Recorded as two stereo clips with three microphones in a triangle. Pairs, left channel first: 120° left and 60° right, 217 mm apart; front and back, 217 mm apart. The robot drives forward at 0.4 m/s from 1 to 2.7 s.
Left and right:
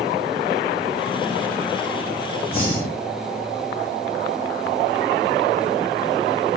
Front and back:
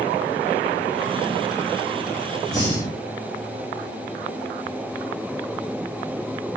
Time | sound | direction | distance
2.5 | breathing | 75° left | 2.5 m